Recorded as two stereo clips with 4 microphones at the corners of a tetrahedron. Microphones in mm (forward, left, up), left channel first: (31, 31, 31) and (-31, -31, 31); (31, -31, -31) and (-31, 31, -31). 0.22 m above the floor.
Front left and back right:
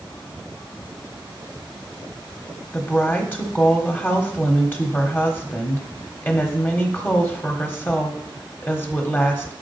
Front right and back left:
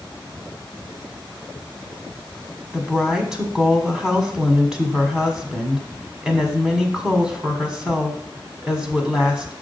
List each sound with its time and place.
2.7 s a woman speaking: 65° left, 1.3 m